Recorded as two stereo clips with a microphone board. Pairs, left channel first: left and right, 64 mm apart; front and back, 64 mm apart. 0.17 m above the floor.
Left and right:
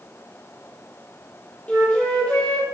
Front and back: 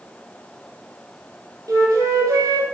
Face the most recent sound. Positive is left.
turn(degrees=155)